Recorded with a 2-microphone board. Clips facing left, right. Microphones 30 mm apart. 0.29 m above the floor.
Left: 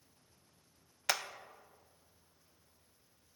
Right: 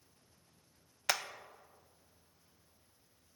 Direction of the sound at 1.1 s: 5° right (ahead or behind).